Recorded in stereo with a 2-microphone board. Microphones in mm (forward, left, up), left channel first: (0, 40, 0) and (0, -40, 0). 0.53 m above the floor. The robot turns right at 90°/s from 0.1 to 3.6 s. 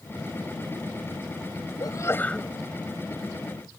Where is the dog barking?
No dog barking in this recording.